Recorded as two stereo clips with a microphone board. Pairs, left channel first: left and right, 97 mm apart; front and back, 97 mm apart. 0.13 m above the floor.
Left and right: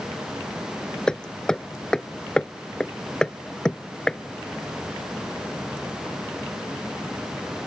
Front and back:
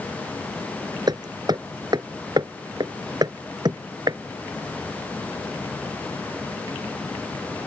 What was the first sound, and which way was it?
Hammering, 170° left.